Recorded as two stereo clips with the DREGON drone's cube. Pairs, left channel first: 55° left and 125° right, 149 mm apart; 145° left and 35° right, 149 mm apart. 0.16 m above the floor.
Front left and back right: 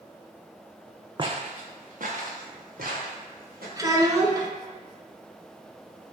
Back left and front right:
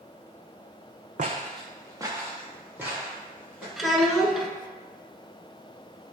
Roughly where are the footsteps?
Right.